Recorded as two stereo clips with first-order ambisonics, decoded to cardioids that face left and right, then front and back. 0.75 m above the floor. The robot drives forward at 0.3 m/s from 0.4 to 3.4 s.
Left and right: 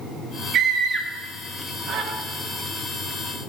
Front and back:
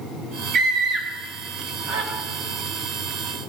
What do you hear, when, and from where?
0.5 s a scream: 130° right, 1.5 m; by 2.1 s 145° right, 1.8 m